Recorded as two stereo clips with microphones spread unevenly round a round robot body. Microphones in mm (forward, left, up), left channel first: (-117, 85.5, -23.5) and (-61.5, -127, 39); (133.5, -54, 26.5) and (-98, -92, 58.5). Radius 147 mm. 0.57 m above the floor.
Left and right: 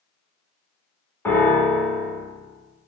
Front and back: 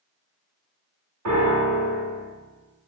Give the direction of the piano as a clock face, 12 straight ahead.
6 o'clock.